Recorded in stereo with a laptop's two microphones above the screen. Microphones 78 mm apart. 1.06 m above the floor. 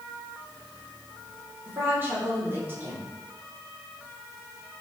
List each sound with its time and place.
1.6 s a woman speaking: 30° right (ahead or behind), 4 m